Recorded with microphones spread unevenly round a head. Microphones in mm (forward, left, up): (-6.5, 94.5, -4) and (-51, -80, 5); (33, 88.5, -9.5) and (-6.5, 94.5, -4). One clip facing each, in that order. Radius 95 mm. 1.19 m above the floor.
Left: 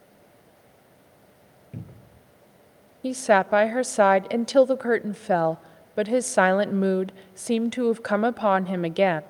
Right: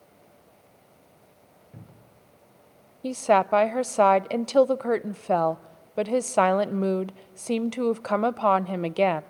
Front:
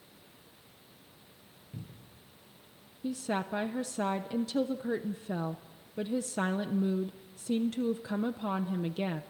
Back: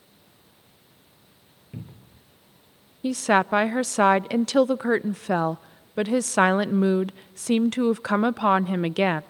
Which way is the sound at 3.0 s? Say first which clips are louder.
Left 1 dB, back 13 dB; 155° left.